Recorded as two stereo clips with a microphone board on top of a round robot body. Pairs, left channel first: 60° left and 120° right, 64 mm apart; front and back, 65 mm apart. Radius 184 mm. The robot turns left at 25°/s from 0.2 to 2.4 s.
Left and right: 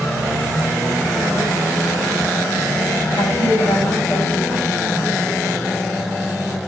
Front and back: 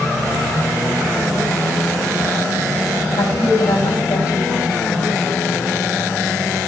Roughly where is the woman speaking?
Ahead.